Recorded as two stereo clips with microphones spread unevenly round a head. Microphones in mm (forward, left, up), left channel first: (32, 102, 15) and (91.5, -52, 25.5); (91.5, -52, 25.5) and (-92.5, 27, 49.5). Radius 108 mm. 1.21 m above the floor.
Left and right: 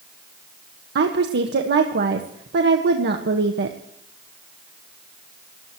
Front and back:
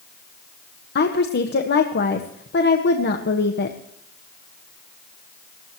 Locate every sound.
0.9 s a woman speaking: 55° right, 1.5 m